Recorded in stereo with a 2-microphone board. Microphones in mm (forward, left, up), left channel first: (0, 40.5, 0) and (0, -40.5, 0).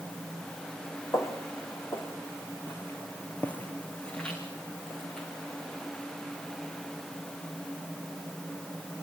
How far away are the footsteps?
About 3.5 m.